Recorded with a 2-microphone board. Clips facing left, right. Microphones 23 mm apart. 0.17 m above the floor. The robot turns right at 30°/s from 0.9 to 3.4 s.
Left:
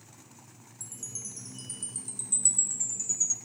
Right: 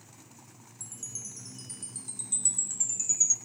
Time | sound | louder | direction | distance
0.8 | a chime | even | 175° right | 2 m